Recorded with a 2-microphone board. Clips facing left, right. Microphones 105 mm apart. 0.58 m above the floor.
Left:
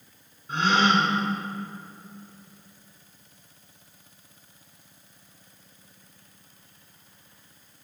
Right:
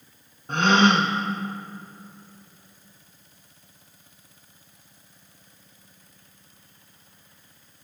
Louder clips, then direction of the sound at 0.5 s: Right 3 dB; 65° right (ahead or behind).